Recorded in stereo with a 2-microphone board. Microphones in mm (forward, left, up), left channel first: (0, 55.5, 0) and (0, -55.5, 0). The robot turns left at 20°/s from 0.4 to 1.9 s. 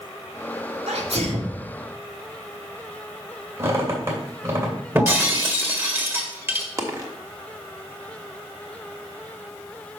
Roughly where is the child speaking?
I don't hear a child speaking.